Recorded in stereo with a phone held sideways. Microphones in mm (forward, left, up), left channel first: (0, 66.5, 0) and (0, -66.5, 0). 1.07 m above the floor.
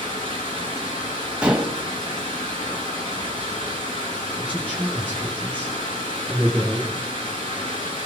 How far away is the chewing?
I don't hear chewing.